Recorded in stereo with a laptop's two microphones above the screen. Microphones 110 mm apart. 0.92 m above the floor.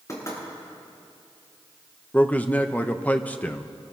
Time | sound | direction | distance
0.1 | knocking | 30° left (ahead or behind) | 7 m
2.1 | a man speaking | 15° left (ahead or behind) | 0.7 m